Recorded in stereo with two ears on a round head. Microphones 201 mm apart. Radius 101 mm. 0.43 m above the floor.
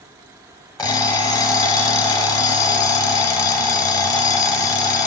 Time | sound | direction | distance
0.8 | an alarm clock | 20° left (ahead or behind) | 1.3 m